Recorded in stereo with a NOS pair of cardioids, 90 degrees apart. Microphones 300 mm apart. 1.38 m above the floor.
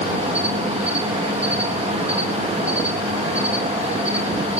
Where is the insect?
20° right, 4 m.